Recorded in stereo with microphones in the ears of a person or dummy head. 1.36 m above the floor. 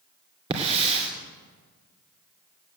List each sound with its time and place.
0.5 s a hiss: 30° right (ahead or behind), 2.5 m